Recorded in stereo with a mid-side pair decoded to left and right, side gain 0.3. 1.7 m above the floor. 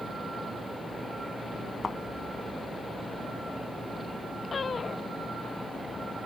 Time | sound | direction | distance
1.8 | a thud | 50° left | ?